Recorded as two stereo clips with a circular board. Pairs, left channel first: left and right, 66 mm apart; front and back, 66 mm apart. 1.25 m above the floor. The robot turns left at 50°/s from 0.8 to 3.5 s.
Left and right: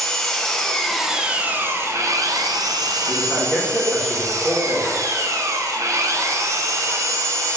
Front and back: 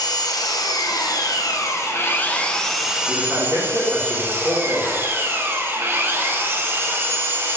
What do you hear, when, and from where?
0.0 s an engine running: 10° left, 0.7 m; by 7.6 s 125° right, 0.7 m
3.1 s a man speaking: 135° right, 2.5 m; by 5.0 s 155° right, 2.5 m